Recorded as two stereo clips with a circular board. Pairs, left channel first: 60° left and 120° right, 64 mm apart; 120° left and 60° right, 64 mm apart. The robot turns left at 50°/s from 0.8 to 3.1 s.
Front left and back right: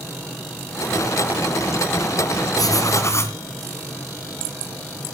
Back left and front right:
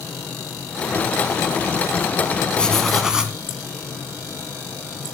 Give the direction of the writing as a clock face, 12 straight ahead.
10 o'clock.